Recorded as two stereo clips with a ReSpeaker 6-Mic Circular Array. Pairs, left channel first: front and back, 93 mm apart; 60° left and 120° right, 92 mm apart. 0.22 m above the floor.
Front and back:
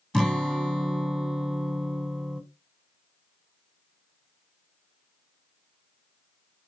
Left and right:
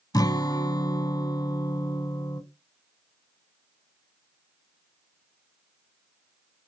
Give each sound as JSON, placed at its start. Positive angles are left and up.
{"t": 0.1, "sound": "a guitar", "azimuth_deg": 85, "distance_m": 1.0}